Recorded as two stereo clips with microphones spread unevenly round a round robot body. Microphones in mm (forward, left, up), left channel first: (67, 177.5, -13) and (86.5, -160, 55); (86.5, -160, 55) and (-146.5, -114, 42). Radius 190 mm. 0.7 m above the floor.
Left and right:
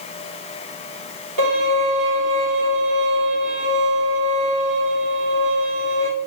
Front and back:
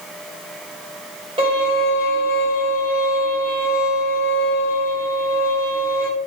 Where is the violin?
130° right, 2 m.